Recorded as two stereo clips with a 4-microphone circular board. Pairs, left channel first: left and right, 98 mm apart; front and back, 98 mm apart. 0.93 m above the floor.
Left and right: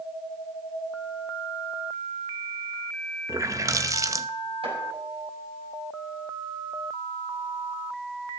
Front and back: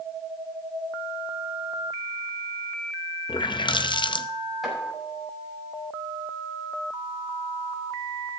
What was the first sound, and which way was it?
A running tap, 35° right.